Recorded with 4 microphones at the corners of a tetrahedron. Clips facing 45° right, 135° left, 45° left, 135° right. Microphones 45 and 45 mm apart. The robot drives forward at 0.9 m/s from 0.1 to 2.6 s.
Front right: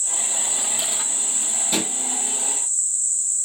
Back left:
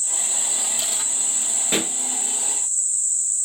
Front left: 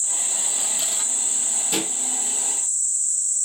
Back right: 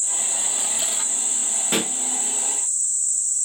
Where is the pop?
Straight behind, 3 m.